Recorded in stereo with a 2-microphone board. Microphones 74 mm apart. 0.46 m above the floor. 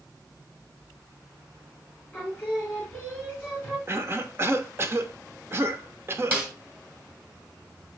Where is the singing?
20° left (ahead or behind), 5 m.